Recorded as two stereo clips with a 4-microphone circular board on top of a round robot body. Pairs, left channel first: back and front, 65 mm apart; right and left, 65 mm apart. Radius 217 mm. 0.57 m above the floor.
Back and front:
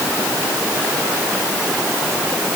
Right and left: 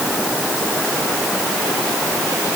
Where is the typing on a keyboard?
I don't hear typing on a keyboard.